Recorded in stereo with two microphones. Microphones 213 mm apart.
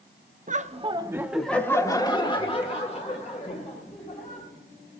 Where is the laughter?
40° right (ahead or behind), 0.7 m; by 4.5 s 40° left (ahead or behind), 2.5 m.